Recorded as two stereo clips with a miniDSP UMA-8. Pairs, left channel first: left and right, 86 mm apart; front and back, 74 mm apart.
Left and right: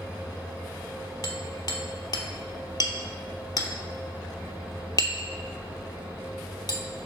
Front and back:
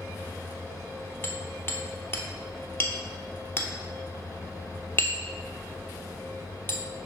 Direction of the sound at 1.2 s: 55° left.